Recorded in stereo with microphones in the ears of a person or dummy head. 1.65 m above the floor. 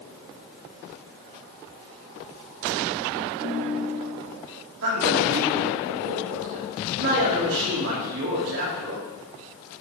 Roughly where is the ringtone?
Right.